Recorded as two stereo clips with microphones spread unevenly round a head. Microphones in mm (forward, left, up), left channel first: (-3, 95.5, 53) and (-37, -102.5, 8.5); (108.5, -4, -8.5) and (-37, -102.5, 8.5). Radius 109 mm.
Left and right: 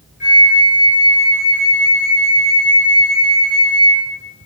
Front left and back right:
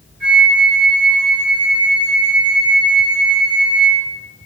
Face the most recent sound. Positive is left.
turn(degrees=135)